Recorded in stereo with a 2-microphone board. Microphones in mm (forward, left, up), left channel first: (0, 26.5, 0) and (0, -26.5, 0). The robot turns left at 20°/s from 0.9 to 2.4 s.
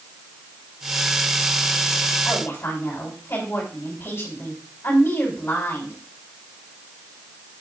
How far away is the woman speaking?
About 4 m.